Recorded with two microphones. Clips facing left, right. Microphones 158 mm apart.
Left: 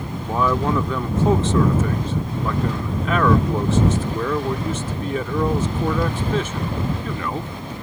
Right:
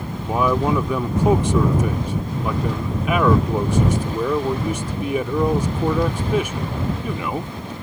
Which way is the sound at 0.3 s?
15° right (ahead or behind).